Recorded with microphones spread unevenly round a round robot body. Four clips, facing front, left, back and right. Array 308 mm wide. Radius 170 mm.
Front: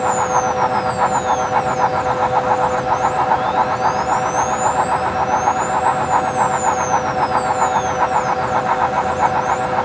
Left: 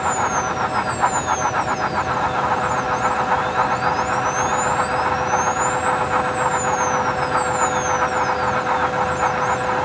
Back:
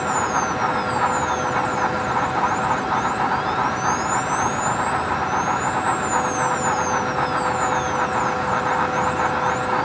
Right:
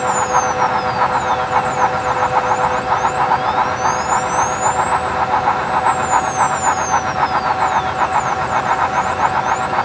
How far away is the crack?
No crack in this recording.